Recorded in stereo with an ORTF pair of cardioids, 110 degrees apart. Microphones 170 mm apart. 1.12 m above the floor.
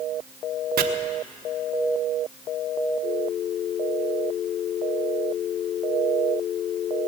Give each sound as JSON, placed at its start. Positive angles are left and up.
{"t": 0.8, "sound": "chopping", "azimuth_deg": -65, "distance_m": 1.2}